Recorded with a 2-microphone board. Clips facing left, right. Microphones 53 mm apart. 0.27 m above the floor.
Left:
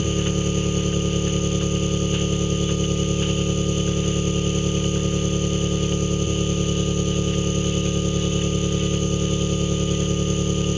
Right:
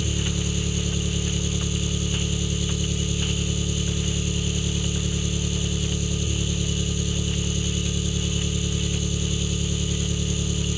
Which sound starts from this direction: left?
An engine running, at 0.0 s.